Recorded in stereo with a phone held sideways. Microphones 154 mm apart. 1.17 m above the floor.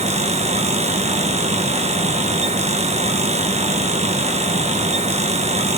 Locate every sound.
0.0 s a fan: 45° right (ahead or behind), 1.0 m